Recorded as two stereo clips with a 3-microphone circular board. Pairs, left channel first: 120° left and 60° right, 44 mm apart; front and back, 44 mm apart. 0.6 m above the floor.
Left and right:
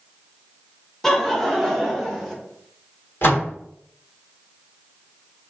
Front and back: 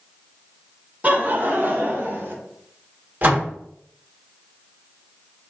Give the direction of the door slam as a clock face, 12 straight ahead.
7 o'clock.